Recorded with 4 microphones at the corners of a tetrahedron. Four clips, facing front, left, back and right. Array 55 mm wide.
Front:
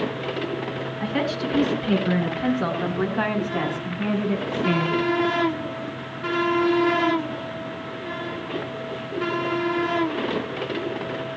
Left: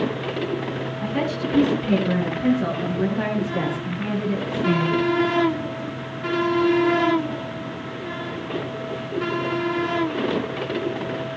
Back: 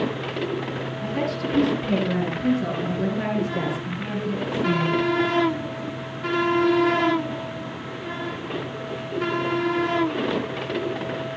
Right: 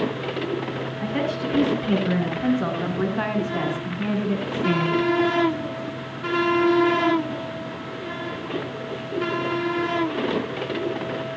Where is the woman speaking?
20° right, 8 m; by 5.1 s 40° right, 6.5 m.